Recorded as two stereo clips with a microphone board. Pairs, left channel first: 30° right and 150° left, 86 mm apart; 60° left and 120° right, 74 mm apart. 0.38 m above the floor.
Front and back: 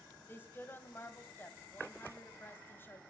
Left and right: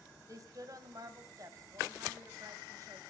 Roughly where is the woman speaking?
Right.